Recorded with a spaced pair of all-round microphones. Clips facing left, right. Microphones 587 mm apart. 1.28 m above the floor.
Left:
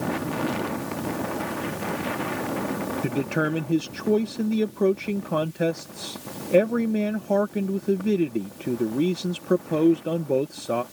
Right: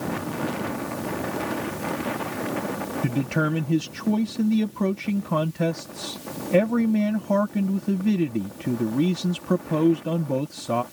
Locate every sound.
3.0 s a man speaking: 25° right (ahead or behind)